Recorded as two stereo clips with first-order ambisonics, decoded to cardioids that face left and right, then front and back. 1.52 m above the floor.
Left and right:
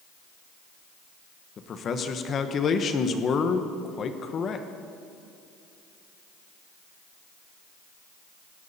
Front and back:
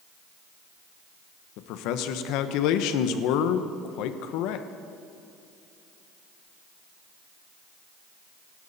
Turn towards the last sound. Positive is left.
turn(degrees=30)